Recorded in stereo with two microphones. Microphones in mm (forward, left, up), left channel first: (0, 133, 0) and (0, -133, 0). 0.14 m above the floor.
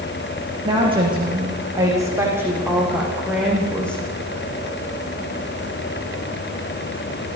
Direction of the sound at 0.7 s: 20° right (ahead or behind).